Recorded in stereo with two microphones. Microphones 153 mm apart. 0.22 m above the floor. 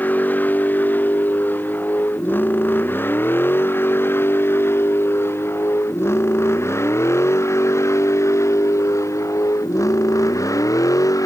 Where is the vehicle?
10° left (ahead or behind); by 11.3 s 20° left (ahead or behind).